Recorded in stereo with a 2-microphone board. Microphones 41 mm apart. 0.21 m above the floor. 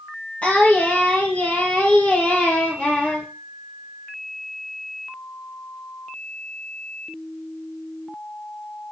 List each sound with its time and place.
0.4 s singing: 35° left (ahead or behind), 2.5 m